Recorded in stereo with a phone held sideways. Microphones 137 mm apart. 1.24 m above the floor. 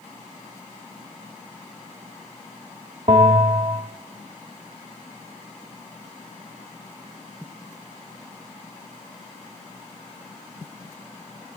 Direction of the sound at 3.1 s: 50° right (ahead or behind).